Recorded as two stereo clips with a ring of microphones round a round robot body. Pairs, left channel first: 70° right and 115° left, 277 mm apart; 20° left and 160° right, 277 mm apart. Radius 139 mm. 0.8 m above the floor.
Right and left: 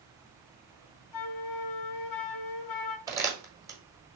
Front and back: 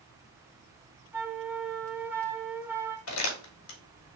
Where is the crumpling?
35° left, 1.5 m.